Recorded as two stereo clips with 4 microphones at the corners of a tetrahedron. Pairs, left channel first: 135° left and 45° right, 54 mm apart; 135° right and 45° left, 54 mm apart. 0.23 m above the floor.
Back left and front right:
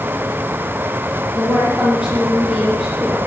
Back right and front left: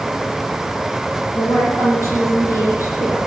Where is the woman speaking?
110° right, 5.5 m; by 3.2 s 120° right, 5 m.